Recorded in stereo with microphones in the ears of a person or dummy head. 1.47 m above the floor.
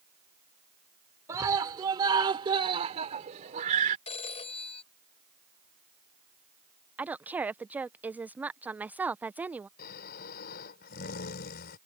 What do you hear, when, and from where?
1.3 s a scream: 20° right (ahead or behind); by 4.0 s 45° right (ahead or behind)
4.1 s a phone ringing: 35° left (ahead or behind)
7.0 s a woman speaking: 10° right (ahead or behind)
9.8 s snoring: 50° left (ahead or behind)